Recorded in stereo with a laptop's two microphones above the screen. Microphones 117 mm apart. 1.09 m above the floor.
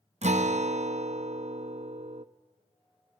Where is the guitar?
70° right (ahead or behind), 0.6 m.